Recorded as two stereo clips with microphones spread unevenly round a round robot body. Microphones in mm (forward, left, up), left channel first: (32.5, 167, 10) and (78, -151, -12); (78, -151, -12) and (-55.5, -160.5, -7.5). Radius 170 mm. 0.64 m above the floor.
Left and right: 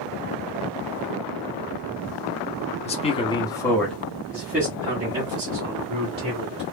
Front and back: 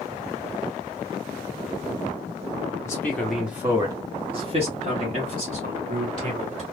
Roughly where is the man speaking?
Ahead left.